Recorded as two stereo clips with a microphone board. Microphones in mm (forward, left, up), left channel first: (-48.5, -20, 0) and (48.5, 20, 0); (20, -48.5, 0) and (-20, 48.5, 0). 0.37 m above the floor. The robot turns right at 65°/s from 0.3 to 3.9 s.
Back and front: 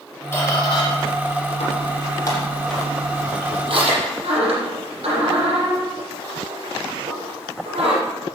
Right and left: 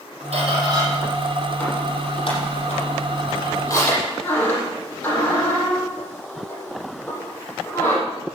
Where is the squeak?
130° left, 8 m; by 8.0 s 5° left, 8 m.